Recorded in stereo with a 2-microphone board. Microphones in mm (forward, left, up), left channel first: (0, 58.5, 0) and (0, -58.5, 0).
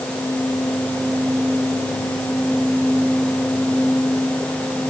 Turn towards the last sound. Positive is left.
No sound to turn to.